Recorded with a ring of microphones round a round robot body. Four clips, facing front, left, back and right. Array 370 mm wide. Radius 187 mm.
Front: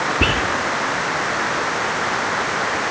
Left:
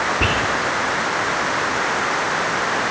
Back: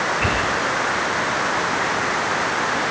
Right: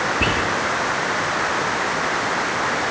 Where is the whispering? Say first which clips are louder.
Left 1 dB, front 1 dB; 5° right, 8.5 m.